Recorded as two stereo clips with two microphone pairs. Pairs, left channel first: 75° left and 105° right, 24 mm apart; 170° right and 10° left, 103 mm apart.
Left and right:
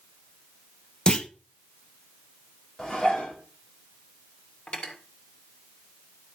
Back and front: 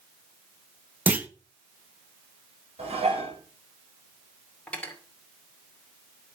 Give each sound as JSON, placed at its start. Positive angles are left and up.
{"t": 1.1, "sound": "a clunk", "azimuth_deg": 70, "distance_m": 1.0}
{"t": 2.8, "sound": "dishes clattering", "azimuth_deg": 20, "distance_m": 6.0}
{"t": 4.7, "sound": "cutlery clinking", "azimuth_deg": 110, "distance_m": 2.5}